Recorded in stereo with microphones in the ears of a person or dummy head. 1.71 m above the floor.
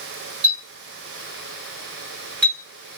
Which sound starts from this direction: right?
A clink, at 0.4 s.